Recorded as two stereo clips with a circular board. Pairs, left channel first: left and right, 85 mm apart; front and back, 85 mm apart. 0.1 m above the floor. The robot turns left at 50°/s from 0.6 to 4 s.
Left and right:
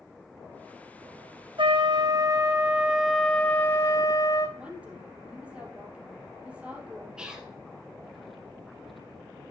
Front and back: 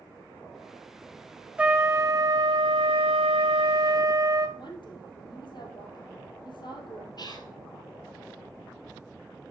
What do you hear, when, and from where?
1.6 s a trumpet: 105° right, 1.3 m; by 4.5 s 135° left, 1.3 m
4.6 s a woman speaking: 15° right, 2.5 m
7.2 s whispering: 10° right, 2 m